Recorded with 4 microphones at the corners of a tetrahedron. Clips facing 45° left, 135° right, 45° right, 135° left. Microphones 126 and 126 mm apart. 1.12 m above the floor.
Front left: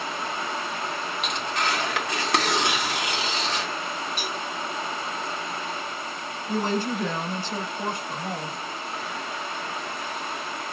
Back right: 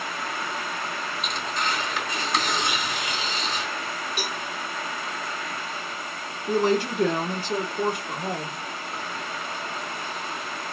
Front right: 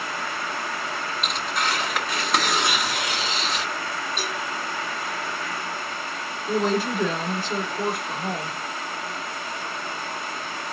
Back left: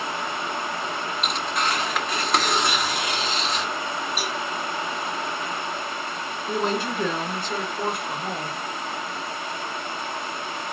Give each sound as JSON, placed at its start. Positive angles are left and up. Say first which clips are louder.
{"t": 1.2, "sound": "tearing paper", "louder": "front left 2 dB, back left 1 dB", "azimuth_deg": 45, "distance_m": 1.4}
{"t": 4.2, "sound": "a cowbell", "louder": "even, back left 1 dB", "azimuth_deg": -140, "distance_m": 1.8}
{"t": 6.5, "sound": "a woman speaking", "louder": "back right 4 dB, front right 3 dB", "azimuth_deg": -135, "distance_m": 3.0}